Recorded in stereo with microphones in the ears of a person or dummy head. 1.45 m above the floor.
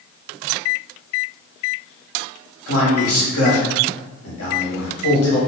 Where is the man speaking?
80° left, 1.2 m.